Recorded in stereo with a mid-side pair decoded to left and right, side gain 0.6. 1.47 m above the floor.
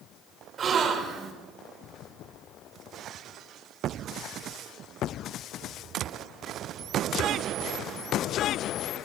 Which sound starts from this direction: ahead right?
A gasp, at 0.6 s.